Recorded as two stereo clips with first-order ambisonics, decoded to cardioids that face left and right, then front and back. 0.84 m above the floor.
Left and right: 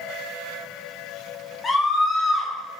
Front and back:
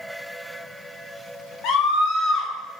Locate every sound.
1.6 s a scream: 20° left, 1.8 m